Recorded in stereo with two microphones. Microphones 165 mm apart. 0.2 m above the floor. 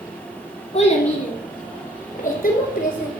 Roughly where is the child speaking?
Left.